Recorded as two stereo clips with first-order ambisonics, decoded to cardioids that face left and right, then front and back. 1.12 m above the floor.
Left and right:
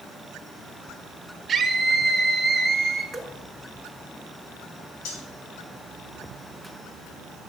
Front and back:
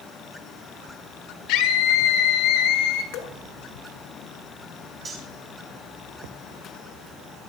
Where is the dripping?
5° right, 1.9 m.